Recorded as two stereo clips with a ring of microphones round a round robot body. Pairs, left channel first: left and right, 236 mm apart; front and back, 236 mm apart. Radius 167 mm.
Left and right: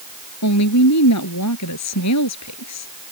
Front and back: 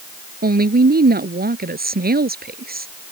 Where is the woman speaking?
130° left.